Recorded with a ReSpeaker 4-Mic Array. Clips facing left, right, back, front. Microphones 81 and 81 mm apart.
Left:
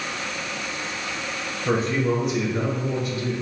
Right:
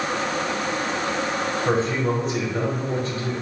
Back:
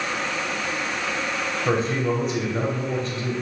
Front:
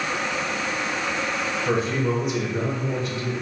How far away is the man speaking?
About 1.6 m.